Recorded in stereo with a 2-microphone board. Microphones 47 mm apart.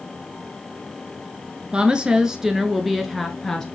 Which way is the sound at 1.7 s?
20° right (ahead or behind).